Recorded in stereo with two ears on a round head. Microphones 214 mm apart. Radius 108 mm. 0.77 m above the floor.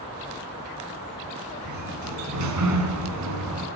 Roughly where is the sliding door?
Right.